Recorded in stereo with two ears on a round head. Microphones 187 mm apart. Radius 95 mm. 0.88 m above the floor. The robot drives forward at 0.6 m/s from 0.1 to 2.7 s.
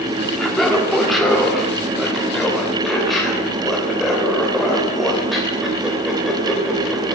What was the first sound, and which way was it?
Laughter, centre (ahead or behind).